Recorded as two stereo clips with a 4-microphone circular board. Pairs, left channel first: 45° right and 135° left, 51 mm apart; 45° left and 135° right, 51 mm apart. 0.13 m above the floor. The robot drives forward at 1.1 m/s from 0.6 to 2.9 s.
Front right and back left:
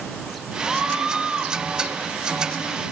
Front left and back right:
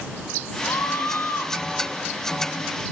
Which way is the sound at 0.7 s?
50° left.